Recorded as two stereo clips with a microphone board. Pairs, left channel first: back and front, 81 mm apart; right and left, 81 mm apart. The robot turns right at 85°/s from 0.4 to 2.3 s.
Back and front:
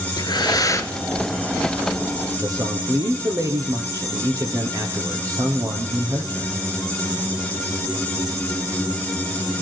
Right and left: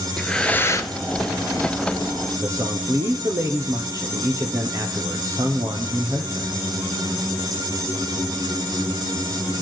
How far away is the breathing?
About 1.3 m.